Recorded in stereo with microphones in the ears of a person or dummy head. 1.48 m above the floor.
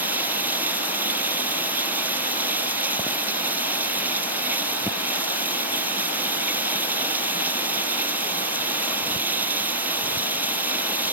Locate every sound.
0.0 s running water: 10° right (ahead or behind)